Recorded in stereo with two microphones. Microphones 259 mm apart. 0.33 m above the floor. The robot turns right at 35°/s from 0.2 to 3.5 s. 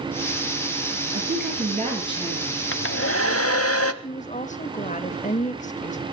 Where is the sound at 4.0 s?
30° left (ahead or behind), 1.1 m.